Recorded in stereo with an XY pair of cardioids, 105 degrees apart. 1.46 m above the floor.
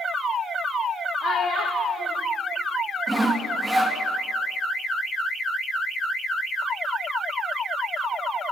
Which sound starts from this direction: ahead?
Sawing, at 3.1 s.